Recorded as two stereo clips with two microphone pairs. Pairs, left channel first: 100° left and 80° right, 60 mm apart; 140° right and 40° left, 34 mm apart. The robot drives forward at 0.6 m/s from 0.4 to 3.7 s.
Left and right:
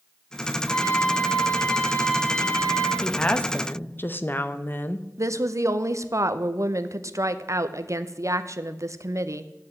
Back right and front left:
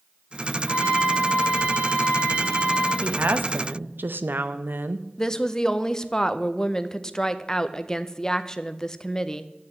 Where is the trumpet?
35° left, 6 m; by 2.9 s 45° left, 5 m.